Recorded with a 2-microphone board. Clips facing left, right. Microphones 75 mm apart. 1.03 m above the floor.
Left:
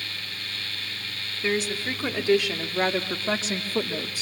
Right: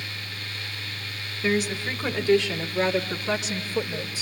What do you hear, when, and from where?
1.4 s a woman speaking: 5° left (ahead or behind), 2.5 m; by 4.2 s 55° left (ahead or behind), 2.0 m